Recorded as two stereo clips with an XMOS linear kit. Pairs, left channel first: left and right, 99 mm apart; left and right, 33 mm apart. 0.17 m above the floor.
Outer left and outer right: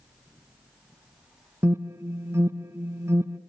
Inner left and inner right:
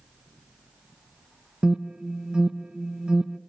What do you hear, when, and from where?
1.6 s an alarm: 25° right (ahead or behind), 0.9 m